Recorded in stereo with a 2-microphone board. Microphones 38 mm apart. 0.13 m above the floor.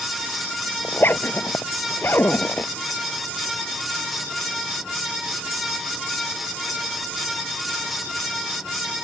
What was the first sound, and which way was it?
A zipper, 60° left (ahead or behind).